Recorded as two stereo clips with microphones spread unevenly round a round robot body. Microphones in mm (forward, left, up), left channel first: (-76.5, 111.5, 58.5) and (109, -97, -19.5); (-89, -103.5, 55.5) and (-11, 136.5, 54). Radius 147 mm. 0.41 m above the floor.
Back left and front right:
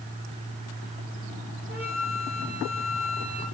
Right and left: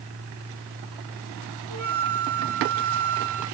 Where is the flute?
60° left, 4 m.